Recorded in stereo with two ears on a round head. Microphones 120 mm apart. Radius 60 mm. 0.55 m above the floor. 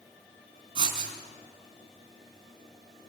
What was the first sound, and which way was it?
Writing, 40° right (ahead or behind).